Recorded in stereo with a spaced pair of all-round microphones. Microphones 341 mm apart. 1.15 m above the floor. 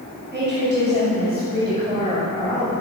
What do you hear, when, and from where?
0.3 s a woman speaking: 25° right (ahead or behind), 6.5 m; by 2.7 s 15° right (ahead or behind), 7 m